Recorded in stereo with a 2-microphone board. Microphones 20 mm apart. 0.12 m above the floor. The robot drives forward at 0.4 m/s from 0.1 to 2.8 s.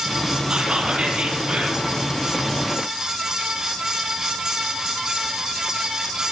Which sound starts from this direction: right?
Whispering, at 0.5 s.